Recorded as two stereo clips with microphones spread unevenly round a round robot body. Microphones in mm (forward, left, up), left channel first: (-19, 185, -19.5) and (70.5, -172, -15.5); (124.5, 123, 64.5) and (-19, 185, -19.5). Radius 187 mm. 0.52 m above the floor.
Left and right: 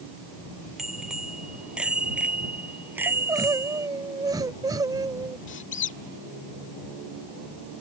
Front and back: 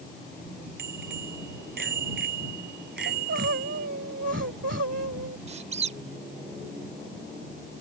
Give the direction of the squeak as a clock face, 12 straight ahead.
7 o'clock.